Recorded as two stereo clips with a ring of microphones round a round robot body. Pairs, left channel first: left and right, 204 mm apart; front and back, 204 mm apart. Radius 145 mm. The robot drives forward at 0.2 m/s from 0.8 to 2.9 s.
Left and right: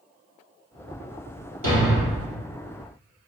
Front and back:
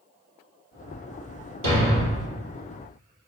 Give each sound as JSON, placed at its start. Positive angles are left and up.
{"t": 1.6, "sound": "a thud", "azimuth_deg": -130, "distance_m": 2.5}